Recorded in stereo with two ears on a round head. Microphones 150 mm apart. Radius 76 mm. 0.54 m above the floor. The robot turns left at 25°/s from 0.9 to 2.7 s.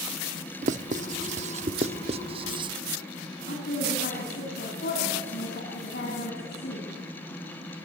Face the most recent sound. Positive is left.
turn(degrees=65)  # may be behind; listen again after turning